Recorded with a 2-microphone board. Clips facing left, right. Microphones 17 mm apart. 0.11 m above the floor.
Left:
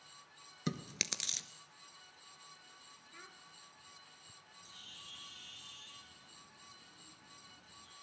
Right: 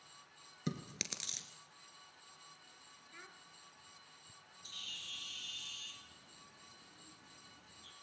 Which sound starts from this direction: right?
A bird, at 4.6 s.